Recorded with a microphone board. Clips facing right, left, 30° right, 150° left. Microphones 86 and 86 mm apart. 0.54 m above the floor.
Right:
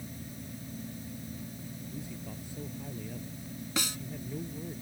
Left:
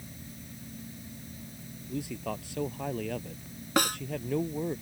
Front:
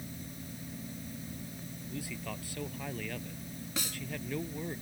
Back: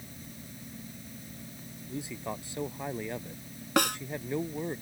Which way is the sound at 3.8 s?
125° left.